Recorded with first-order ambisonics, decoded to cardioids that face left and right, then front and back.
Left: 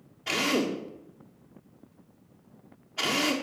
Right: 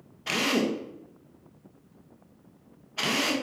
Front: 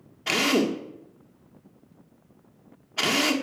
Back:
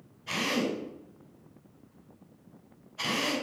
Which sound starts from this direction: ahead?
A drill, at 0.3 s.